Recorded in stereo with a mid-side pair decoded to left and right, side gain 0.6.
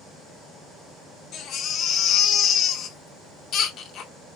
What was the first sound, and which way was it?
A baby crying, 55° left.